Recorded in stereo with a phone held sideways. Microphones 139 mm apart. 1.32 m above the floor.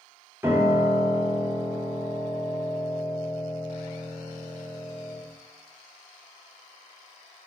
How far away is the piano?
About 0.7 m.